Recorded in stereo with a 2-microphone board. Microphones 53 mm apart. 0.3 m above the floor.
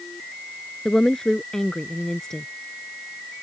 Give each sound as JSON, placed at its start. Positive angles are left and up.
{"t": 0.8, "sound": "a woman speaking", "side_deg": 10}